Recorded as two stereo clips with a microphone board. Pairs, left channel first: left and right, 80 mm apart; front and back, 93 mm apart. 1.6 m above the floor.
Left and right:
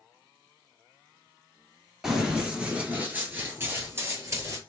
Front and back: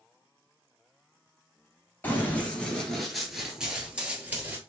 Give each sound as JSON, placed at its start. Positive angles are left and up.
{"t": 2.0, "sound": "running footsteps", "azimuth_deg": -15, "distance_m": 1.6}